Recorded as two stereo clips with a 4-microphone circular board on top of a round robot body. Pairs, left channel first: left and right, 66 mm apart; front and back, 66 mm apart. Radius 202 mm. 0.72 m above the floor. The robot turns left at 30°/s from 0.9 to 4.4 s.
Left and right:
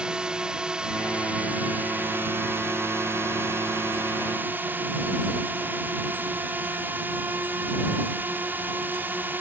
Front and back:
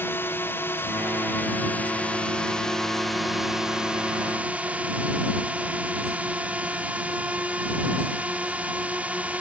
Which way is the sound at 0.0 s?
20° right.